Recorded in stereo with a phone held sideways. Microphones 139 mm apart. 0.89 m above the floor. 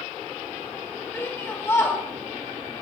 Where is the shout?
20° left (ahead or behind), 1.3 m.